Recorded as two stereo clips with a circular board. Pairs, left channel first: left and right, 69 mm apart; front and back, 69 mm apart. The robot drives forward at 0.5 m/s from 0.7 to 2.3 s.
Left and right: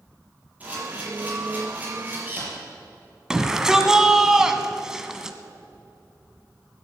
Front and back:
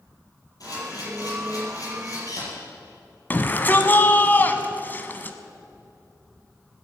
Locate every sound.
0.6 s a camera shutter: 25° right, 6 m
3.3 s a shout: 20° right, 1.2 m